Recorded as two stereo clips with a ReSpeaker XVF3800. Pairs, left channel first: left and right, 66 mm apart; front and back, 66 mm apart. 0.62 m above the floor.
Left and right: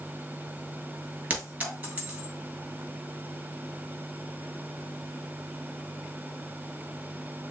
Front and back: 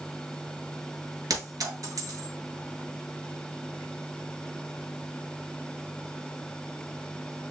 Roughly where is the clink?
Behind.